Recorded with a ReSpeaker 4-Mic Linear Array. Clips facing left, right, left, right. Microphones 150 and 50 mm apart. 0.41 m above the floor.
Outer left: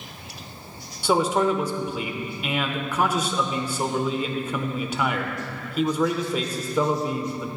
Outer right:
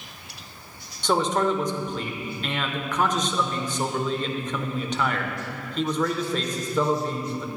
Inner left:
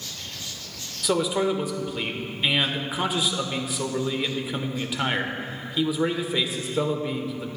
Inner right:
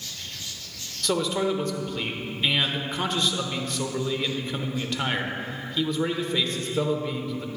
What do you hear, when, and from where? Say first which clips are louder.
1.0 s a man speaking: outer left 2 dB, inner left 2 dB; 10° left (ahead or behind), 0.8 m